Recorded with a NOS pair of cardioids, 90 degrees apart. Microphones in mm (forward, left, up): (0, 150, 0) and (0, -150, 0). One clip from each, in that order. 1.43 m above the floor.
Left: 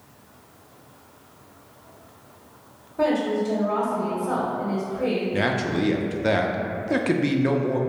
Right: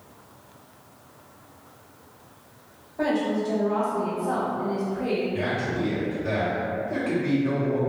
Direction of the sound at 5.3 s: 55° left.